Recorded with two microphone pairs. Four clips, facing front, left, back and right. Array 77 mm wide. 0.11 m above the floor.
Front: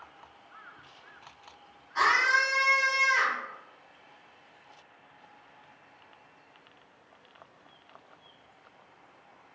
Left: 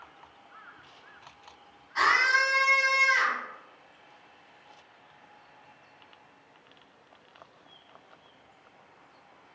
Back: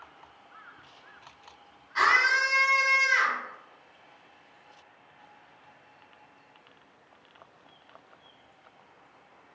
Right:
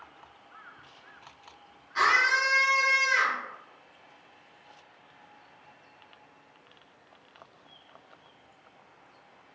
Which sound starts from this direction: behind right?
A scream, at 1.9 s.